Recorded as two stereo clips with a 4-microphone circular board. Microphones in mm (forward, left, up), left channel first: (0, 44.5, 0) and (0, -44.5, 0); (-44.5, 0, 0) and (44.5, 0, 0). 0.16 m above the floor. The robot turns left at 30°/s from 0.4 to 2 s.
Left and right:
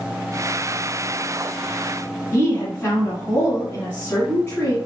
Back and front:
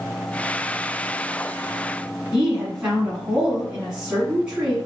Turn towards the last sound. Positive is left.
turn(degrees=70)